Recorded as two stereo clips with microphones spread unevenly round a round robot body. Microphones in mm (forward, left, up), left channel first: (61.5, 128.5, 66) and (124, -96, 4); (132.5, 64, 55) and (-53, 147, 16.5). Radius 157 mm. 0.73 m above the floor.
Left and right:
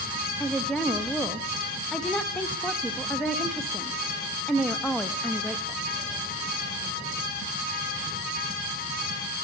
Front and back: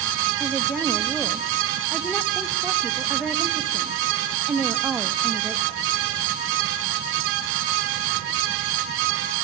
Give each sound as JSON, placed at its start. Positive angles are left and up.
{"t": 0.4, "sound": "a woman speaking", "azimuth_deg": -140, "distance_m": 1.1}